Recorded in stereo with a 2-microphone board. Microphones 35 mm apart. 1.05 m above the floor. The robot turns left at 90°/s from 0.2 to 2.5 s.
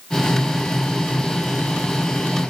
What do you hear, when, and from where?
Only background noise.